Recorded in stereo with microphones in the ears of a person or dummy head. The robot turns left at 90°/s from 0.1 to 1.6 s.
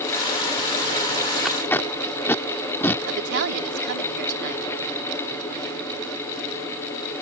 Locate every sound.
1.4 s tape being pulled: 5° right (ahead or behind); by 3.0 s 10° left (ahead or behind)
3.1 s a woman speaking: 60° right (ahead or behind)